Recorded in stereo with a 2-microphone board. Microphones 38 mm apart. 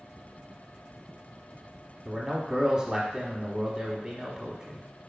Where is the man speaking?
20° right (ahead or behind), 1.1 m.